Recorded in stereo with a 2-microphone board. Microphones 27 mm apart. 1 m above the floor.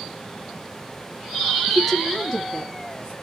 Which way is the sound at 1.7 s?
10° right (ahead or behind).